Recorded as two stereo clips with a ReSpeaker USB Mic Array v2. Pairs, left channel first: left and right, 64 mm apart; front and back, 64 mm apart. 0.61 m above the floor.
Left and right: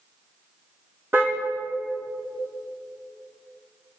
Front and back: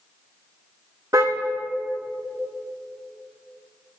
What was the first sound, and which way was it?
A car horn, 140° right.